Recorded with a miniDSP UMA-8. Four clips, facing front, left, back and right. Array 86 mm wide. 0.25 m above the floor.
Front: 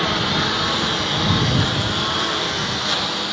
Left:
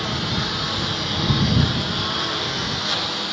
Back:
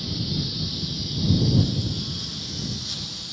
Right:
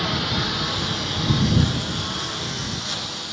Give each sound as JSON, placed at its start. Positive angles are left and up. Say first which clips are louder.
{"t": 0.0, "sound": "a lawn mower", "louder": "even, front 10 dB", "azimuth_deg": -5}